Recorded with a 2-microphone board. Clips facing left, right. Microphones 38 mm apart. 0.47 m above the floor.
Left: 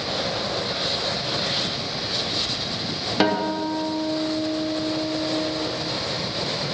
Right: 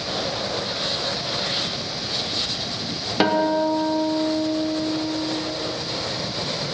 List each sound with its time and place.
3.2 s a guitar: 5° right (ahead or behind), 1.0 m